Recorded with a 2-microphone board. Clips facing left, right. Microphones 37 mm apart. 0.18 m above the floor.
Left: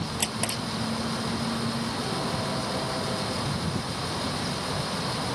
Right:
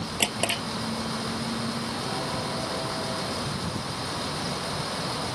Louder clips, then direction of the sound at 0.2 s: Right 7 dB; 50° right (ahead or behind).